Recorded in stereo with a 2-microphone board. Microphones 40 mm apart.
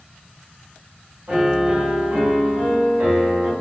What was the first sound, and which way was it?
A piano, 50° right (ahead or behind).